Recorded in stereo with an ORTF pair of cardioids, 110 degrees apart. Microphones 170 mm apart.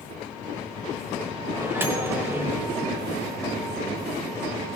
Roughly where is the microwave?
Ahead.